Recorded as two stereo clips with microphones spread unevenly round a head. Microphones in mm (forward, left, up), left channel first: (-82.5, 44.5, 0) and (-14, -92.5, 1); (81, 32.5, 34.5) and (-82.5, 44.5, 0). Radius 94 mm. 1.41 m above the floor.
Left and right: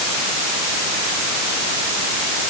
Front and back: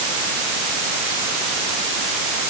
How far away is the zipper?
No zipper in this recording.